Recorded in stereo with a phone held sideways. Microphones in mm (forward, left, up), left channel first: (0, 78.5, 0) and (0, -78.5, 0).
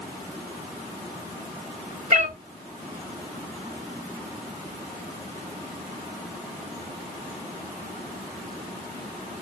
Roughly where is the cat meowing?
Right.